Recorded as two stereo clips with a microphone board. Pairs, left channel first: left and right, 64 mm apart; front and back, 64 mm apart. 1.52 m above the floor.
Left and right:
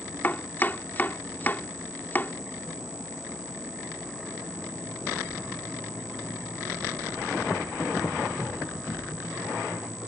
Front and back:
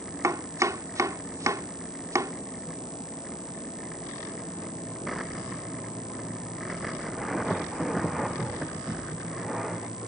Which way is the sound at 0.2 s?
150° left.